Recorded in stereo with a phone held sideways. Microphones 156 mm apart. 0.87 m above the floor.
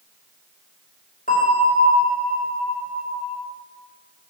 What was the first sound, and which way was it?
A bell, 65° left (ahead or behind).